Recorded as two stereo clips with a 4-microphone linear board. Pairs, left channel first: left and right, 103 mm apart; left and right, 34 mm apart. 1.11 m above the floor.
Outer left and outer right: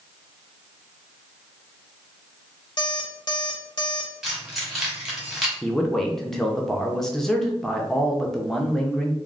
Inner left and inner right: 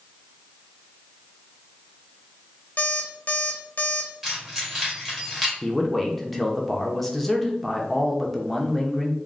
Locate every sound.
2.8 s an alarm clock: 50° left (ahead or behind), 0.7 m
4.2 s keys jangling: centre (ahead or behind), 1.5 m
5.6 s a man speaking: 5° left (ahead or behind), 0.7 m